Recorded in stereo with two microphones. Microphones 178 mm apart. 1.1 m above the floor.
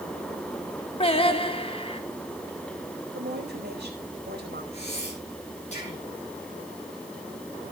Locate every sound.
1.0 s singing: 35° left (ahead or behind), 1.3 m
3.1 s a woman speaking: 80° right, 4.5 m
4.7 s breathing: 40° left (ahead or behind), 10 m